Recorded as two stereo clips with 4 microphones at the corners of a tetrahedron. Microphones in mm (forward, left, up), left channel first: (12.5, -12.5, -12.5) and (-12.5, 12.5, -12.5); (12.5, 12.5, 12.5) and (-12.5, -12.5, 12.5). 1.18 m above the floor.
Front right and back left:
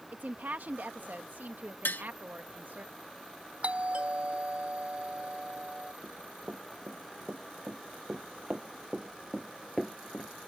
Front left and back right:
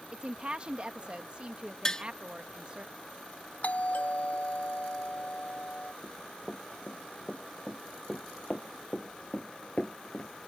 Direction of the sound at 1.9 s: 25° right.